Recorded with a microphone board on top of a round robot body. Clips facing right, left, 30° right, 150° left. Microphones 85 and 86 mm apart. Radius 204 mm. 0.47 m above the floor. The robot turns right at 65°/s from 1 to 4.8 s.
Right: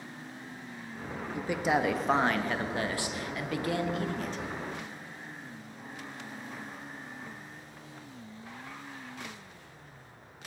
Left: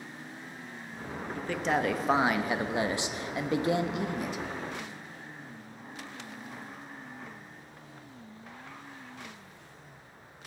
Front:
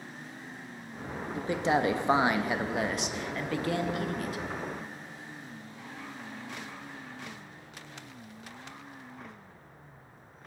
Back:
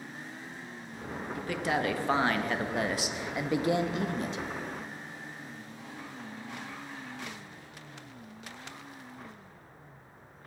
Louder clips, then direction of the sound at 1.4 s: Right 1 dB, front 4 dB; 40° right.